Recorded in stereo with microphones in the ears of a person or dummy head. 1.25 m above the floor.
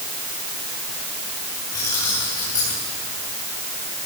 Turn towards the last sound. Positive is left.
turn(degrees=20)  # may be behind; listen again after turning